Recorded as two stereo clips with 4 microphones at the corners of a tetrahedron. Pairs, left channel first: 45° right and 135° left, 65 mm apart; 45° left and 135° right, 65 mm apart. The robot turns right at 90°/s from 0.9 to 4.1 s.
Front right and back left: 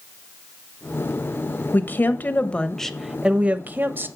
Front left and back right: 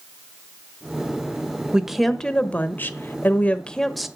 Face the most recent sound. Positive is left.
turn(degrees=145)